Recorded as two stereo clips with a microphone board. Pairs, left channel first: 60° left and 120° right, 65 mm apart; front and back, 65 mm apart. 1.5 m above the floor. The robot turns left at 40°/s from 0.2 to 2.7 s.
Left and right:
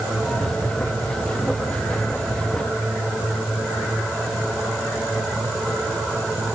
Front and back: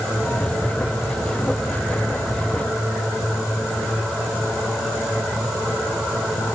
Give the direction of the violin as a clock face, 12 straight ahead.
No violin in this recording.